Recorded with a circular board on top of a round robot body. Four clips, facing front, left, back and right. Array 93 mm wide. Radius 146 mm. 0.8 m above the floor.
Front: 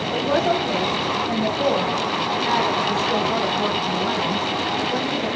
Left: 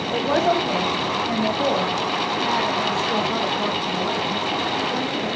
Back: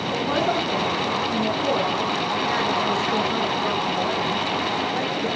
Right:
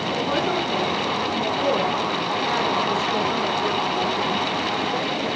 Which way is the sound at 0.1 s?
65° left.